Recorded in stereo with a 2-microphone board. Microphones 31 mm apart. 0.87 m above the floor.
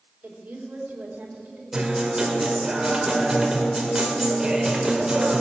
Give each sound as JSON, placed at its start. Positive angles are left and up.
{"t": 0.2, "sound": "a woman speaking", "side_deg": -70, "distance_m": 3.5}
{"t": 1.7, "sound": "a guitar", "side_deg": -15, "distance_m": 2.5}